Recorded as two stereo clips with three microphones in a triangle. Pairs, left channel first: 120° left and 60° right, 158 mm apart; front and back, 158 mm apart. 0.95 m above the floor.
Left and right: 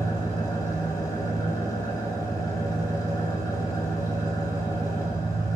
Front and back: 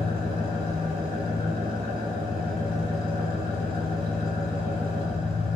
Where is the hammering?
I don't hear hammering.